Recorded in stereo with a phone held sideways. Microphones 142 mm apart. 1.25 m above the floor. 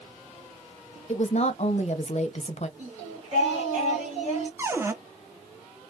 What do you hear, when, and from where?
1.1 s a woman speaking: 55° left (ahead or behind), 0.6 m
2.8 s singing: 60° right (ahead or behind), 1.5 m
4.6 s a cupboard door: 20° right (ahead or behind), 0.5 m